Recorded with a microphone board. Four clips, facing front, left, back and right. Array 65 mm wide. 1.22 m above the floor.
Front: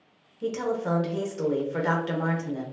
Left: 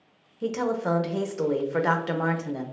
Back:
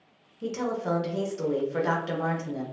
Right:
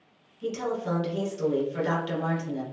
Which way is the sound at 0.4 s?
85° left.